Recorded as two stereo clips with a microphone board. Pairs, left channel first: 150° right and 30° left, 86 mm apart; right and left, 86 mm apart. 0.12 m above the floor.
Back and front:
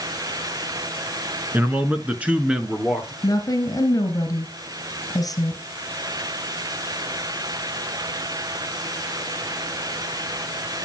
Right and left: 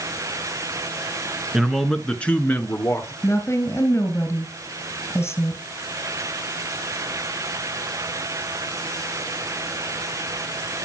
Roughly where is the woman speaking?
Behind right.